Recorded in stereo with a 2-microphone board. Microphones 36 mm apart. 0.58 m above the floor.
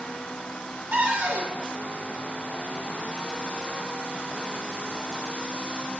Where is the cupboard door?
65° right (ahead or behind), 1.2 m.